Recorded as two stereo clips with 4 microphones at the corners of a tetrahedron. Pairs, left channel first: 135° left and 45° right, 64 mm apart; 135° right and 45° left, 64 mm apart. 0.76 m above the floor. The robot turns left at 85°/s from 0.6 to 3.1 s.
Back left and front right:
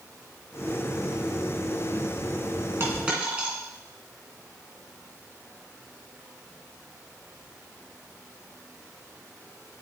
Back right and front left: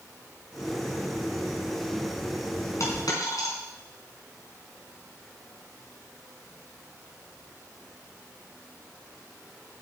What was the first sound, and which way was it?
A dropped coin, 95° right.